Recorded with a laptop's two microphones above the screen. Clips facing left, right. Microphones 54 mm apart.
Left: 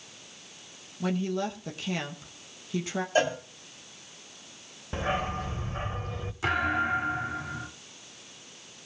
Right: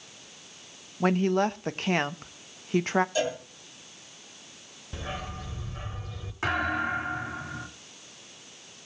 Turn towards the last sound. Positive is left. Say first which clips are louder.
# left 1 dB
turn(degrees=-45)  # may be behind; listen again after turning